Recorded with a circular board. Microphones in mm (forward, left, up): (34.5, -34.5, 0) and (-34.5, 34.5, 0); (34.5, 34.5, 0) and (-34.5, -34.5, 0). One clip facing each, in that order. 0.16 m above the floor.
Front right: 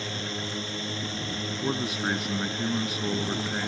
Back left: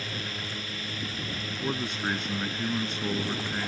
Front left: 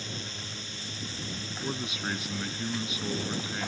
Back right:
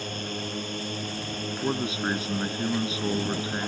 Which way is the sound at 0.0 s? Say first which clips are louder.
Front right 3 dB, back right 8 dB; 105° right.